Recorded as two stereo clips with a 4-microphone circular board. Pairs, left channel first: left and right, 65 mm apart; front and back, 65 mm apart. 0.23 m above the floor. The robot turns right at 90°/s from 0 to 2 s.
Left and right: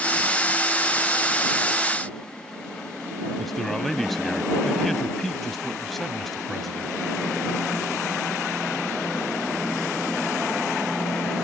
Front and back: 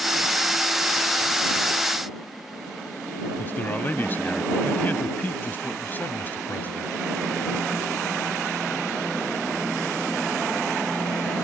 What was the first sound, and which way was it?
A man speaking, 10° left.